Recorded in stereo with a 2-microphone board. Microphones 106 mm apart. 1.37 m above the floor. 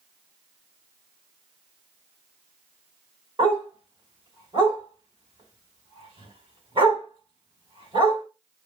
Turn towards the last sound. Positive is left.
turn(degrees=-50)  # may be behind; listen again after turning